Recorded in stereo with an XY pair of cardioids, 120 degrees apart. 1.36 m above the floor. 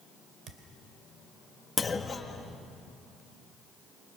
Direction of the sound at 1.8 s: 25° left.